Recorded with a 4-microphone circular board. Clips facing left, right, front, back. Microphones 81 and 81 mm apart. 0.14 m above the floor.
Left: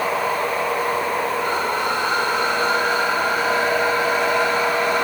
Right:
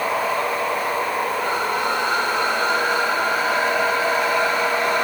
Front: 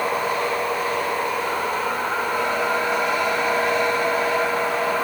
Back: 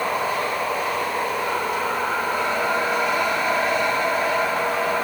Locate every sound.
Only background noise.